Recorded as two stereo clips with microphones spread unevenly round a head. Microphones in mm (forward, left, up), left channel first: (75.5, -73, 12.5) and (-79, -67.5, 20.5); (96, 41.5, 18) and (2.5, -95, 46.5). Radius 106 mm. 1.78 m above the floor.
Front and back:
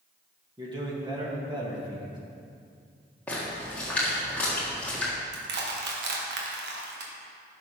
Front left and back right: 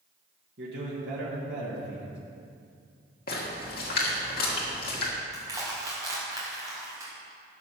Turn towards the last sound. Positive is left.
turn(degrees=165)